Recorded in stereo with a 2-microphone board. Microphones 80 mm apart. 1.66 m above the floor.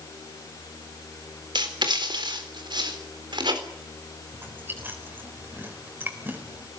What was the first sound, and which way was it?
Writing, 75° right (ahead or behind).